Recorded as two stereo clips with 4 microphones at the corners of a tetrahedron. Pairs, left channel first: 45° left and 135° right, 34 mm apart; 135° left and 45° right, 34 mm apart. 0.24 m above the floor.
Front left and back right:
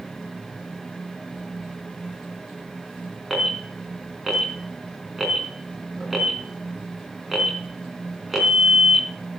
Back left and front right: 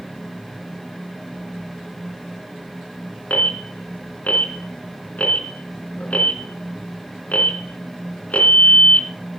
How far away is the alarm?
About 3.5 m.